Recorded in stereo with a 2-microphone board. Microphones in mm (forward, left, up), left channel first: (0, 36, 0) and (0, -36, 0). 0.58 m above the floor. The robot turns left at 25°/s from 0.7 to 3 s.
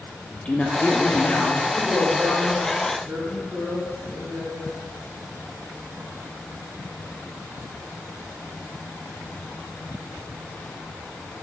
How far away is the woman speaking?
About 2.0 m.